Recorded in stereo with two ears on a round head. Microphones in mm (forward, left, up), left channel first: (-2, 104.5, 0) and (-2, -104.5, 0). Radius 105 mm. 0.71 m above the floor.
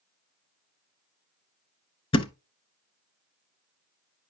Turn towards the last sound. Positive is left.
turn(degrees=25)  # may be behind; listen again after turning